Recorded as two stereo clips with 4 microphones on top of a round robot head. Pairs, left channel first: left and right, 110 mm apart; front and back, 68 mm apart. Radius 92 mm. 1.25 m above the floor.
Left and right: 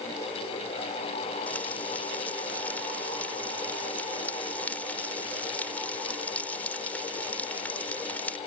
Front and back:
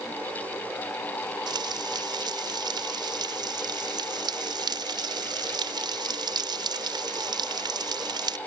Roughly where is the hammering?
No hammering in this recording.